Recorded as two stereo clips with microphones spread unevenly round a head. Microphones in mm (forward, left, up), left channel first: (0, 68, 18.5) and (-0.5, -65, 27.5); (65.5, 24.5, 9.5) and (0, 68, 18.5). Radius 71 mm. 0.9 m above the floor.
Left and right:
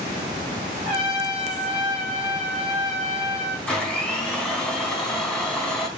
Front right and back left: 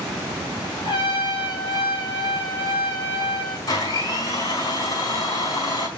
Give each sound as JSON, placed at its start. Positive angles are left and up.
{"t": 0.8, "sound": "a trumpet", "azimuth_deg": -10, "distance_m": 3.5}
{"t": 3.7, "sound": "a blender", "azimuth_deg": 5, "distance_m": 3.5}